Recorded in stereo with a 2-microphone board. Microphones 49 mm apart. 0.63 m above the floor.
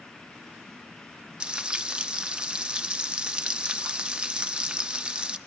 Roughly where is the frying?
Right.